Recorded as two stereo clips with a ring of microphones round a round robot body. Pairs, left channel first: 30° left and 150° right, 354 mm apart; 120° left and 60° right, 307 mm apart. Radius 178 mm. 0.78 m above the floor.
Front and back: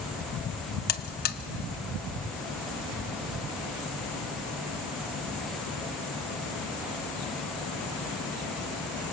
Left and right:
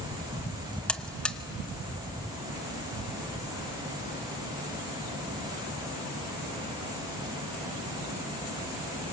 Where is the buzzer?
40° left, 1.0 m.